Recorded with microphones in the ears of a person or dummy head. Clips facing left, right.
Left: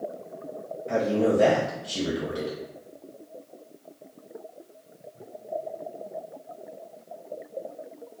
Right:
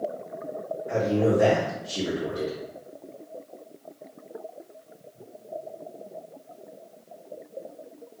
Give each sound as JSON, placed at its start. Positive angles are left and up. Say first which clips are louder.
{"t": 0.9, "sound": "a man speaking", "louder": "even", "side_deg": 30, "distance_m": 0.6}